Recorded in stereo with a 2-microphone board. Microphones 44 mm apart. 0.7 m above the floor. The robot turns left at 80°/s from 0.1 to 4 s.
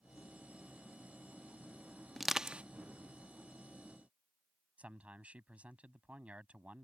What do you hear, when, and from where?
2.2 s crushing: centre (ahead or behind); by 2.6 s 35° right (ahead or behind)
4.8 s a man speaking: 35° right (ahead or behind)